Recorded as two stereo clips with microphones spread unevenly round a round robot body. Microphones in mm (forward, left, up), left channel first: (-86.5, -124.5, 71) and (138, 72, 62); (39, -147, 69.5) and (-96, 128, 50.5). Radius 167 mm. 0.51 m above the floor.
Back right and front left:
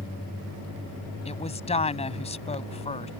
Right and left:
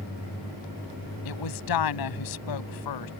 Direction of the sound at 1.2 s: 70° right.